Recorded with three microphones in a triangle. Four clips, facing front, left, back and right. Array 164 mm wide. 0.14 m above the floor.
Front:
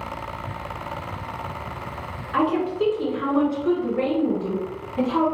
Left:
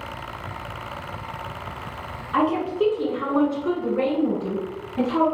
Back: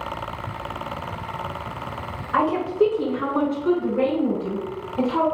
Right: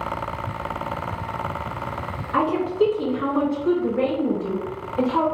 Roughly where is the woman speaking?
Behind.